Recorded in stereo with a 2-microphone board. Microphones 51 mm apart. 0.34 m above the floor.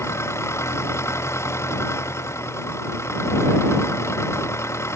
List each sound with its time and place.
0.0 s an engine running: 60° left (ahead or behind)